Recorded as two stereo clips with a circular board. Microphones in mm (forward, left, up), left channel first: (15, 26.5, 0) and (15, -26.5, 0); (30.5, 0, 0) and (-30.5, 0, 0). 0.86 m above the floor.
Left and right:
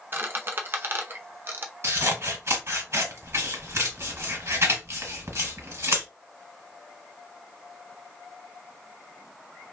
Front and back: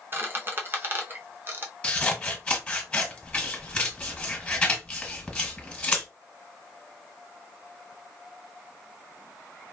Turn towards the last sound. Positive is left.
turn(degrees=-70)